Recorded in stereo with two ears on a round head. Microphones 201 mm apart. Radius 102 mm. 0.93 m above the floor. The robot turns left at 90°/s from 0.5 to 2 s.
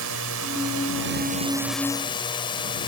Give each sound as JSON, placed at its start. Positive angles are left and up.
{"t": 0.0, "sound": "a drone", "azimuth_deg": -70}